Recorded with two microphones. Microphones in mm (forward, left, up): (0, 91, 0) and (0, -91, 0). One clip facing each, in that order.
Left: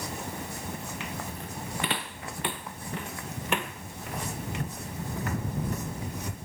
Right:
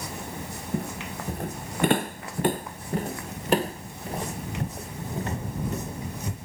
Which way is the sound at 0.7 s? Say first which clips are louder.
Right 6 dB; 55° right (ahead or behind).